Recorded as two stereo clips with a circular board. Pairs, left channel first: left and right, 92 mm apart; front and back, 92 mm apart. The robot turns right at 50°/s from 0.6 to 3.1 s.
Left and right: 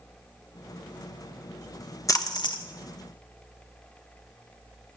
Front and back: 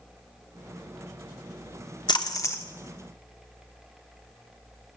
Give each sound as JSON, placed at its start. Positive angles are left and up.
{"t": 2.1, "sound": "a splash", "azimuth_deg": 35, "distance_m": 1.0}